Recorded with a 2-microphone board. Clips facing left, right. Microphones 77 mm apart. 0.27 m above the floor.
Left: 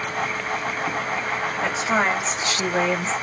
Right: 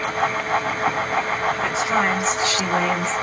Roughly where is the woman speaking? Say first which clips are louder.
Left 2 dB; left.